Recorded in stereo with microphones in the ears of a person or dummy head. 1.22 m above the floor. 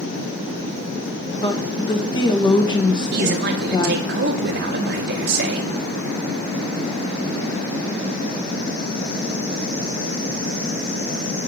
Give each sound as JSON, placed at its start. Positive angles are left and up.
{"t": 1.3, "sound": "a woman speaking", "side_deg": 25, "distance_m": 1.0}
{"t": 3.1, "sound": "a man speaking", "side_deg": -50, "distance_m": 1.1}